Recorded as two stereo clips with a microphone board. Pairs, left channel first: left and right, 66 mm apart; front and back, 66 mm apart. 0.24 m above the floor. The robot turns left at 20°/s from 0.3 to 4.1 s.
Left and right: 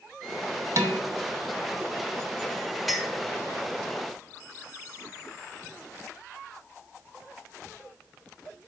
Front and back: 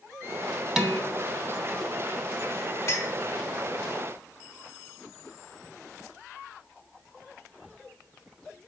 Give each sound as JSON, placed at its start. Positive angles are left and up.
{"t": 0.8, "sound": "dishes clattering", "azimuth_deg": -100, "distance_m": 1.0}
{"t": 2.9, "sound": "a clink", "azimuth_deg": 0, "distance_m": 0.9}